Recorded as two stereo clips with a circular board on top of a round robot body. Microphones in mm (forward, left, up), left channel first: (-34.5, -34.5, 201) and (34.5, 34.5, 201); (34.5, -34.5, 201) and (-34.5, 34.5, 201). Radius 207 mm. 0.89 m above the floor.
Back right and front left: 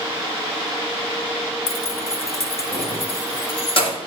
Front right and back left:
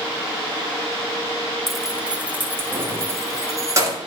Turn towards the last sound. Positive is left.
turn(degrees=-165)